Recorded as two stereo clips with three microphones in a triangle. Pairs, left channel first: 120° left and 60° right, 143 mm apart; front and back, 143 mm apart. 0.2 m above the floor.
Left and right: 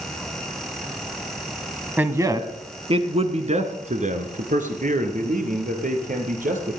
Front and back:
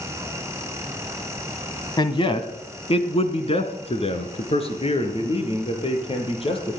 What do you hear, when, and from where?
2.0 s a man speaking: 5° left, 1.1 m; by 6.8 s 45° right, 4.5 m